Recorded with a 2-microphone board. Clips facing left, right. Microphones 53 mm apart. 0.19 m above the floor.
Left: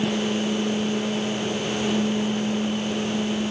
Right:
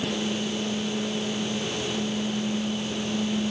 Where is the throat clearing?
I don't hear throat clearing.